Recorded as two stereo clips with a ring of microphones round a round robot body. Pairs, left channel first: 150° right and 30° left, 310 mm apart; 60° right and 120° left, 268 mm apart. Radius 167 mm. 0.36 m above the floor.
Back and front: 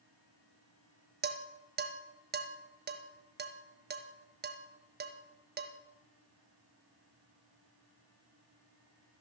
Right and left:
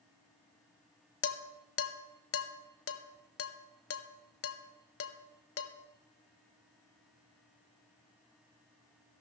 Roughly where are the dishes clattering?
Ahead right.